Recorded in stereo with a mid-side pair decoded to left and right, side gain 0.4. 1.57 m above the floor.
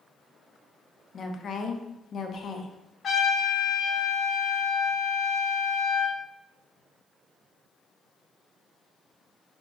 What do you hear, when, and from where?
1.1 s a woman speaking: 55° left, 0.7 m
3.0 s a trumpet: 50° left, 2.0 m